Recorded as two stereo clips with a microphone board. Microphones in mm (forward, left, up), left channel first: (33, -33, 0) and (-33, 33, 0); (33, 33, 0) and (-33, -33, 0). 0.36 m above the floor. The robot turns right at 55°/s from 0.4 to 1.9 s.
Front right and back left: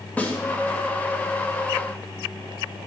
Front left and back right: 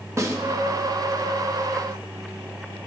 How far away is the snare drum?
About 0.9 m.